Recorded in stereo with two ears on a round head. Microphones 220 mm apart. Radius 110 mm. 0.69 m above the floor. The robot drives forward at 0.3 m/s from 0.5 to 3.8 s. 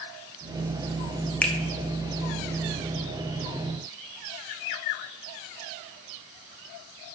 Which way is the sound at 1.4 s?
5° left (ahead or behind).